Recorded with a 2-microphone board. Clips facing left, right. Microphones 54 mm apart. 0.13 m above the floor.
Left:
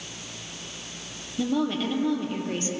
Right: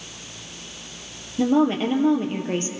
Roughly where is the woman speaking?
Right.